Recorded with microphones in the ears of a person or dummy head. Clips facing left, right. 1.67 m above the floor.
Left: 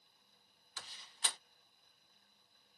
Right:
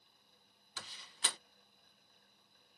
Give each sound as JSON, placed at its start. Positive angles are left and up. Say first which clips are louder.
{"t": 0.8, "sound": "a door slam", "louder": "right 2 dB", "side_deg": -60}